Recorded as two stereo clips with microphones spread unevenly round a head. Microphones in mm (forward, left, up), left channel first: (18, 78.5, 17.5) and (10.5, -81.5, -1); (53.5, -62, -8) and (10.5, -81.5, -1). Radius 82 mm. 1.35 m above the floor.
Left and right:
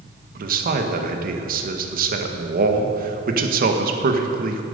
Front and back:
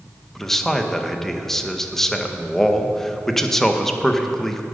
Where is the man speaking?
60° right, 1.5 m.